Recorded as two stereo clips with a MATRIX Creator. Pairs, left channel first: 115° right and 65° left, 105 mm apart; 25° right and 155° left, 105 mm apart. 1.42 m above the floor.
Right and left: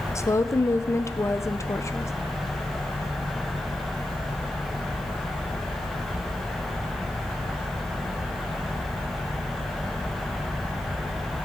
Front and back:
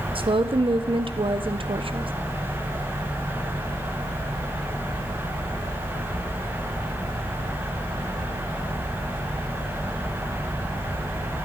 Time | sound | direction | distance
0.1 | a woman speaking | 175° right | 0.6 m